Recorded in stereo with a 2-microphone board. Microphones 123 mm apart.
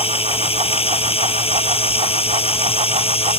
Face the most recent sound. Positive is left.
turn(degrees=50)  # may be behind; listen again after turning